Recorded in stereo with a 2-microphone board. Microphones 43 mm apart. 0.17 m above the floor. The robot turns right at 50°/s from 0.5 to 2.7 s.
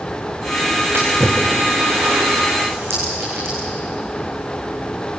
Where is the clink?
70° right (ahead or behind), 7.5 m.